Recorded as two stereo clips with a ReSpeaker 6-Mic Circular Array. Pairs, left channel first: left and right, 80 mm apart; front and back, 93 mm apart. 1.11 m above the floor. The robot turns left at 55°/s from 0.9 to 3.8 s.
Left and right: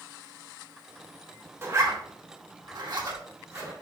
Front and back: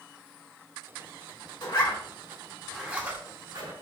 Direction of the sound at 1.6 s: 30° right.